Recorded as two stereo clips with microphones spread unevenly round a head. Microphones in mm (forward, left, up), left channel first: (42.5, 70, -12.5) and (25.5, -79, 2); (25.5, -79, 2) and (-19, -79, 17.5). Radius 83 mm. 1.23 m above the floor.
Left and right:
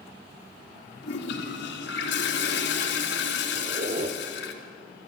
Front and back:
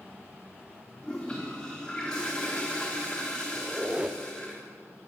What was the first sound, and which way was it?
A toilet flushing, 85° left.